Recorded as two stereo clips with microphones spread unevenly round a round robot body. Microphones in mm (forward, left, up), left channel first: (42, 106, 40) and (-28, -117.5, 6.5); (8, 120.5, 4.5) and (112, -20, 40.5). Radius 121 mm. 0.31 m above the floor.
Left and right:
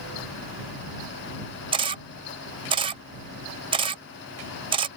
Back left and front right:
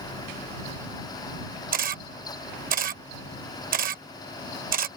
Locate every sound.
1.7 s a camera shutter: 65° right